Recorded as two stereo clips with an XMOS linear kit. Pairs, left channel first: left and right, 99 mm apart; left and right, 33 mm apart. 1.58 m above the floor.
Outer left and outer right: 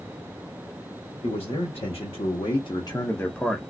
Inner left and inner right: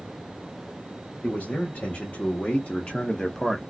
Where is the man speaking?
75° left (ahead or behind), 1.5 m; by 3.6 s centre (ahead or behind), 0.7 m.